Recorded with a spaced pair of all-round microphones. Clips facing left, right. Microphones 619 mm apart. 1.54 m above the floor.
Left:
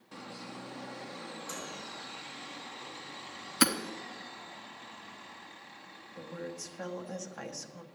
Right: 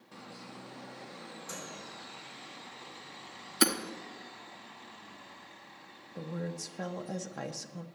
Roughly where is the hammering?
Left.